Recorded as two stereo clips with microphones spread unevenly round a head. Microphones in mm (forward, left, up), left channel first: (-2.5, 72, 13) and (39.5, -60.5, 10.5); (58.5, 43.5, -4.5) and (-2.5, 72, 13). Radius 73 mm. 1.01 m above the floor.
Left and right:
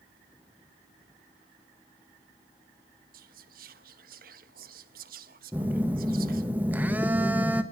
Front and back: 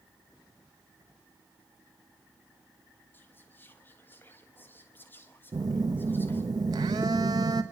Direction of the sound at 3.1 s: 90° right.